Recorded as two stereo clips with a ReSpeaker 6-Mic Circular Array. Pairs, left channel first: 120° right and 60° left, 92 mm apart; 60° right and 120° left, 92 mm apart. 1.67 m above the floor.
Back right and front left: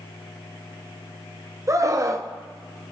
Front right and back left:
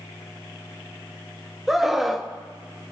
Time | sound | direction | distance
1.7 | a scream | 35° left | 0.7 m